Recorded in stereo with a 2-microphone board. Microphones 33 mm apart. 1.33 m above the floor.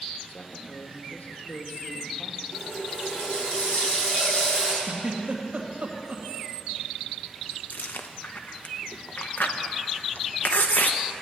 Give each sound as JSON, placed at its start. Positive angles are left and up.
{"t": 0.3, "sound": "a man speaking", "side_deg": 60, "distance_m": 1.6}
{"t": 2.5, "sound": "a running tap", "side_deg": 50, "distance_m": 7.0}
{"t": 4.8, "sound": "a giggle", "side_deg": -40, "distance_m": 2.5}
{"t": 7.7, "sound": "chewing", "side_deg": 60, "distance_m": 0.9}